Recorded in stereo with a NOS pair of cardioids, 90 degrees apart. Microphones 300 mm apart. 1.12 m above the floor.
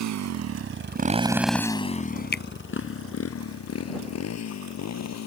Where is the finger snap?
35° left.